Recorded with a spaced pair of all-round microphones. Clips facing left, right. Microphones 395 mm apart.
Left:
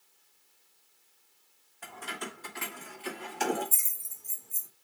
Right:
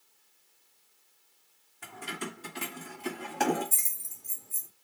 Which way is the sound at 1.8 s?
35° right (ahead or behind).